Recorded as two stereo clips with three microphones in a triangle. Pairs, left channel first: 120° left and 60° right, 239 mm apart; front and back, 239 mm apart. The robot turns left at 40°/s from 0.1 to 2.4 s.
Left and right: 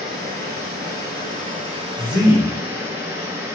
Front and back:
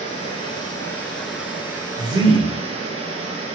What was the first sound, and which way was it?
Running water, 40° right.